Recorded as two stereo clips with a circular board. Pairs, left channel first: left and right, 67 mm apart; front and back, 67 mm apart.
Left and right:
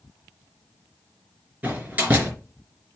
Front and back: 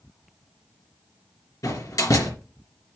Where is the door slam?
25° right, 3.5 m.